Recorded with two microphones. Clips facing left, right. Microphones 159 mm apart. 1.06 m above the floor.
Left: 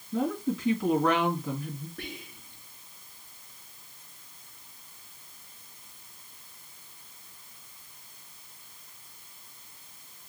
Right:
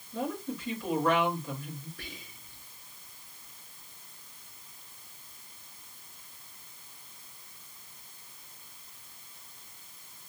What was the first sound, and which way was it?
A woman speaking, 75° left (ahead or behind).